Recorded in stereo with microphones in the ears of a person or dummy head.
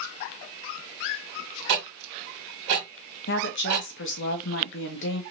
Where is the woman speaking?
60° left (ahead or behind), 1.0 m.